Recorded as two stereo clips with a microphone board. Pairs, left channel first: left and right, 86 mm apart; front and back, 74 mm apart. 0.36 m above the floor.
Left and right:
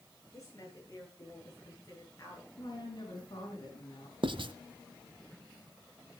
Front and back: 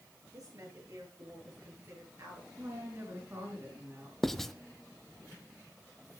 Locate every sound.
0.3 s a woman speaking: 140° left, 7.5 m
2.6 s a woman speaking: 120° left, 5.5 m
4.2 s writing: 85° right, 0.7 m